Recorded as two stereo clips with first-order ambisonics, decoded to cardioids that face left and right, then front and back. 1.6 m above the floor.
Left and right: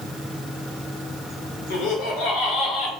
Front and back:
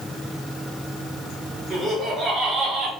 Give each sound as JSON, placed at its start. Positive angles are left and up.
{"t": 1.7, "sound": "laughter", "azimuth_deg": 90, "distance_m": 1.1}